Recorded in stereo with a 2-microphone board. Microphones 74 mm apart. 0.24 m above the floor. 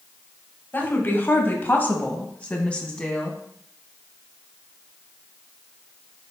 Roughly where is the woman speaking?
Left.